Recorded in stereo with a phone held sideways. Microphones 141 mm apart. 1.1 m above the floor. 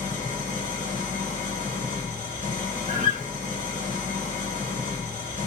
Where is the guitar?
60° right (ahead or behind), 1.3 m.